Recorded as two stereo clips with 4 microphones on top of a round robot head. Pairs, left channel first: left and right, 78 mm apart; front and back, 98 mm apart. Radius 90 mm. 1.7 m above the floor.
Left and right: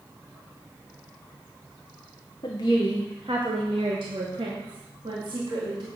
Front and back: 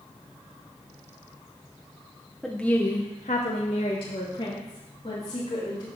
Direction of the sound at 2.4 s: 90° left.